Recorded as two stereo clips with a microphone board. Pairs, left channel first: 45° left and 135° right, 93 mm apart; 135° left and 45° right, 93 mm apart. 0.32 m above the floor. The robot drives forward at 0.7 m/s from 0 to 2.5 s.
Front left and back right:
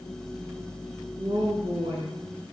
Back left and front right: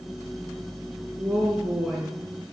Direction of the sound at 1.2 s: 120° right.